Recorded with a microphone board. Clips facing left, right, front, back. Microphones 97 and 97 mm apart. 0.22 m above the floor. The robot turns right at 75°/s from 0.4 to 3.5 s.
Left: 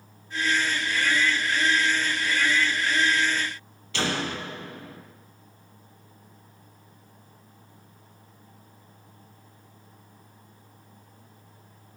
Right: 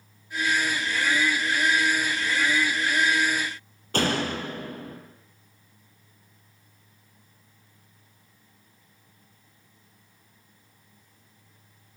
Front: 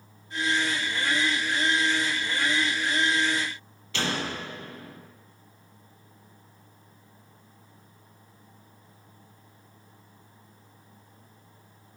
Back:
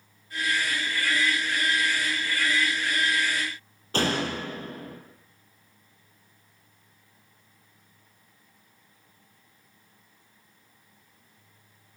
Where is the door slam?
135° right, 5 m.